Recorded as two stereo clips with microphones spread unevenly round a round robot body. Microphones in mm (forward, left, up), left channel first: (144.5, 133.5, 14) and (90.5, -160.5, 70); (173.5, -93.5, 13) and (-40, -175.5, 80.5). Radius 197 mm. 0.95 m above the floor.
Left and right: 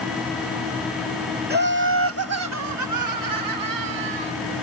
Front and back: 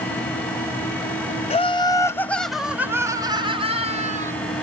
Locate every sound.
1.5 s laughter: 40° right; by 4.3 s 95° right